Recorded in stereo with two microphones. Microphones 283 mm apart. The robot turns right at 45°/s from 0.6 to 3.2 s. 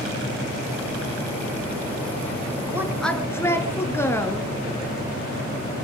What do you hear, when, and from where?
2.7 s a woman speaking: 10° right (ahead or behind), 3 m; by 4.5 s 10° left (ahead or behind), 3 m